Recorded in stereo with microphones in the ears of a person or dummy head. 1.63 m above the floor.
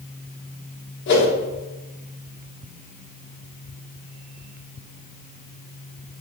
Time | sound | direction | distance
1.1 | a whoosh | 60° left (ahead or behind) | 1.4 m